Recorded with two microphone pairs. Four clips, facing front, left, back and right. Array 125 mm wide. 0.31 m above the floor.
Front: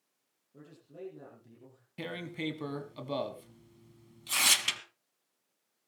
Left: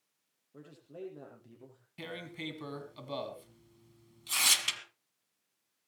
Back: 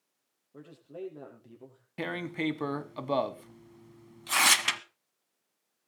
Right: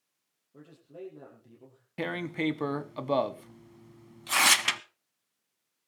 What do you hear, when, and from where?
0.5 s a man speaking: 170° left, 8 m
2.0 s tearing paper: 135° right, 0.9 m